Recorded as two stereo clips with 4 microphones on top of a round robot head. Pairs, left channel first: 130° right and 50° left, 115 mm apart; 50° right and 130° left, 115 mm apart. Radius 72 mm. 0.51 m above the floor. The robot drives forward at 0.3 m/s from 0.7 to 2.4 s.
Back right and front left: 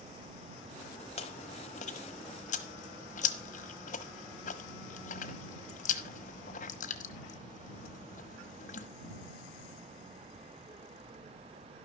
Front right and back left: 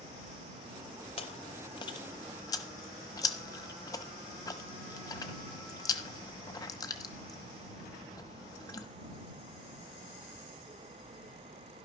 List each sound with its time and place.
1.2 s chewing: 95° right, 1.1 m; by 8.9 s 115° right, 1.2 m